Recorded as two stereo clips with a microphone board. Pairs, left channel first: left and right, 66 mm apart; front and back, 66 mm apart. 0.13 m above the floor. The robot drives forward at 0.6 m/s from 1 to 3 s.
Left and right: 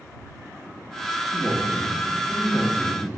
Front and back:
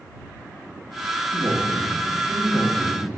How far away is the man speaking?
About 3 m.